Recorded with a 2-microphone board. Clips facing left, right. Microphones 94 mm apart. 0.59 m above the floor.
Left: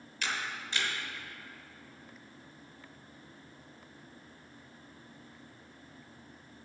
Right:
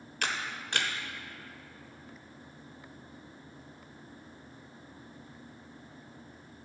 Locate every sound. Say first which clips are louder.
0.2 s a camera shutter: right 2 dB; 60° right (ahead or behind), 0.8 m